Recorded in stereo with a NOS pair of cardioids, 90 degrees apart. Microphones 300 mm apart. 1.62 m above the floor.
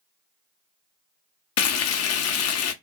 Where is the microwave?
No microwave in this recording.